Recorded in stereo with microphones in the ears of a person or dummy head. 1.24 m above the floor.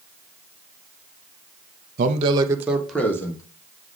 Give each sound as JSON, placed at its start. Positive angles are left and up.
{"t": 2.0, "sound": "a man speaking", "side_deg": -45, "distance_m": 1.0}